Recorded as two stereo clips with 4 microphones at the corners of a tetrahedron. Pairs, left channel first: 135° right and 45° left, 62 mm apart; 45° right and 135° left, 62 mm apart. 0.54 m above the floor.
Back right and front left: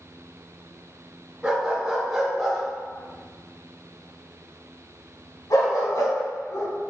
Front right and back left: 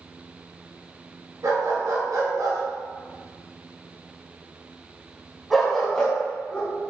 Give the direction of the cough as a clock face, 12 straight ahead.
I don't hear a cough.